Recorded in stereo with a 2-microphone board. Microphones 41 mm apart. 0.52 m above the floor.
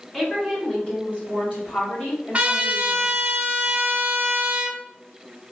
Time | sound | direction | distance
0.1 | a woman speaking | 10° left (ahead or behind) | 2 m
2.3 | a trumpet | 35° right (ahead or behind) | 1.2 m